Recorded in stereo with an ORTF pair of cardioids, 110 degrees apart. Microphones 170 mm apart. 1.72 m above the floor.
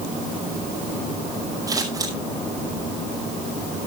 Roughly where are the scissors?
Ahead.